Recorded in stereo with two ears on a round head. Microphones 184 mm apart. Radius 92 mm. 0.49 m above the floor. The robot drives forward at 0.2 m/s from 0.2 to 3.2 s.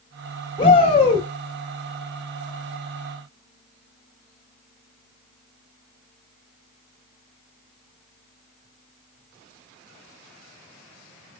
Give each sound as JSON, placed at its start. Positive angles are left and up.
{"t": 0.6, "sound": "a shout", "side_deg": 25, "distance_m": 1.0}